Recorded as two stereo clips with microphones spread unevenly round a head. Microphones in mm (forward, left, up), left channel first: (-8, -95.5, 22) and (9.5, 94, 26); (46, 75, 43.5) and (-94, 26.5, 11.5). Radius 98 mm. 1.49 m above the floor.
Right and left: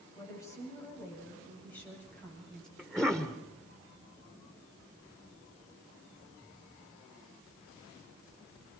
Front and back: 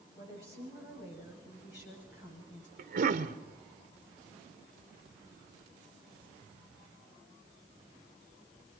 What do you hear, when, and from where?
0.1 s a woman speaking: 20° right, 9 m; by 2.7 s 10° right, 8.5 m
2.8 s a cough: 175° left, 1.0 m